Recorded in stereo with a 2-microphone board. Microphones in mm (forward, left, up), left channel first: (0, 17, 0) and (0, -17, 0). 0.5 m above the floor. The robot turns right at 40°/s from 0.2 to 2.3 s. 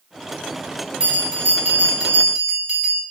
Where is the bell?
140° right, 0.8 m; by 3.0 s 90° right, 0.8 m.